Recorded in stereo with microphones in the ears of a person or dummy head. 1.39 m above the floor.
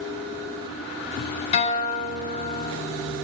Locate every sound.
1.5 s a guitar: 40° left (ahead or behind), 3 m